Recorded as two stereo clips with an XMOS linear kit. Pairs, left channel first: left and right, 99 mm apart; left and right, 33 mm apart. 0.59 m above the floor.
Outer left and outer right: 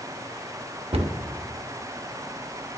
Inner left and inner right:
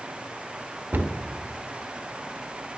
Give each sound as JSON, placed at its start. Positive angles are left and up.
{"t": 0.9, "sound": "a cupboard door", "side_deg": -80, "distance_m": 0.7}